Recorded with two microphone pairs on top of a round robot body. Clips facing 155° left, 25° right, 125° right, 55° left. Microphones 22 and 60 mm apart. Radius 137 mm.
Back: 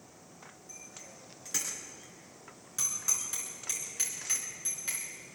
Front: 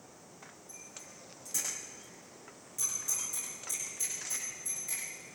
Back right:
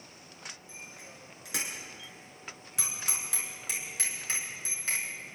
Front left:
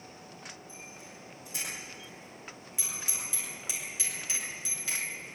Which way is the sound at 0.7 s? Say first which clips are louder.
Back 2 dB, even; 145° right.